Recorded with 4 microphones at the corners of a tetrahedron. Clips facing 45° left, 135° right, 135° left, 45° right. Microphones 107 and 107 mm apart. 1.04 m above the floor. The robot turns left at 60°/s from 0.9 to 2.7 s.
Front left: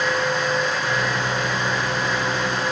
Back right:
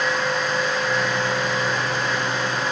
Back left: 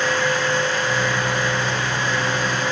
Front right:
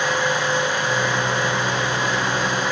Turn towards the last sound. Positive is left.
No sound to turn to.